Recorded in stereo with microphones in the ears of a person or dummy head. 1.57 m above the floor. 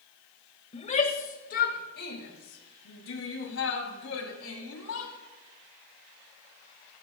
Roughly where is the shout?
Left.